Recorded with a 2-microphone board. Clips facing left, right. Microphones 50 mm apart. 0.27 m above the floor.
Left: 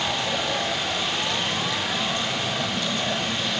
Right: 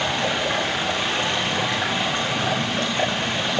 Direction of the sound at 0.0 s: 50° right (ahead or behind).